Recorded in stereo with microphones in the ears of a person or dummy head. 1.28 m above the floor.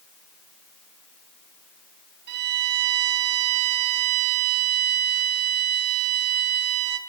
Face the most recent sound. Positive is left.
turn(degrees=-45)  # may be behind; listen again after turning